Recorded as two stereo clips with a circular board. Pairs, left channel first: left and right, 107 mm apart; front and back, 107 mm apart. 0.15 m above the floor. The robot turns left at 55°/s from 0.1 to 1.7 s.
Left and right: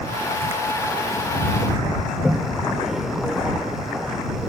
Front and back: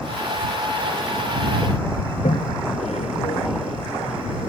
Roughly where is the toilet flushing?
Ahead.